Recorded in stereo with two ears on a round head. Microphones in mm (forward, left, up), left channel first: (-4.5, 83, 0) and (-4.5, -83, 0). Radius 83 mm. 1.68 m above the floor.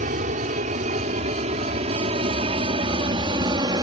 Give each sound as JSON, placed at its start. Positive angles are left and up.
{"t": 0.0, "sound": "an aircraft", "side_deg": -45}